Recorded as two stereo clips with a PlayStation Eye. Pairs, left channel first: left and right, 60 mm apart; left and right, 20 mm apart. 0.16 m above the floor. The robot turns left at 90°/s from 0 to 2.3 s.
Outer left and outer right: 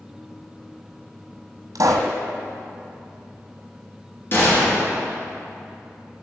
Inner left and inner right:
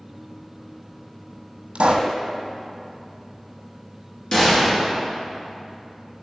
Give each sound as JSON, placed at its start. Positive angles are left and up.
{"t": 1.8, "sound": "a pop", "azimuth_deg": -85, "distance_m": 1.2}
{"t": 4.3, "sound": "a gunshot", "side_deg": 40, "distance_m": 2.5}